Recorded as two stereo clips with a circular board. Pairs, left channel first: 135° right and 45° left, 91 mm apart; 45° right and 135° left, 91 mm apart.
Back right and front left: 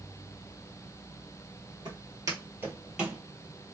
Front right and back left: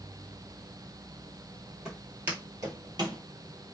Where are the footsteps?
55° left, 1.7 m; by 3.2 s 135° left, 1.7 m.